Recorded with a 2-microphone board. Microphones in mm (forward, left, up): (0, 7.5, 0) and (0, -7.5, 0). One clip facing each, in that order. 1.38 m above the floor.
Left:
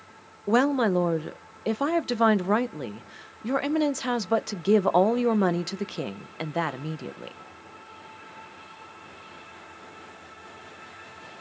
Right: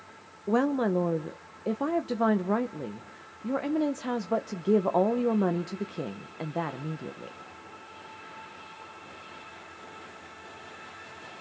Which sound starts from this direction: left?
A woman speaking, at 0.5 s.